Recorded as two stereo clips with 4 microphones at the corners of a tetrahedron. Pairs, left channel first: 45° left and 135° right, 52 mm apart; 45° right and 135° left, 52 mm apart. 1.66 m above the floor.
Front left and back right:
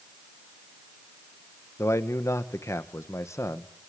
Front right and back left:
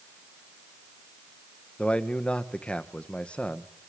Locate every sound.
1.8 s a man speaking: 25° left, 1.3 m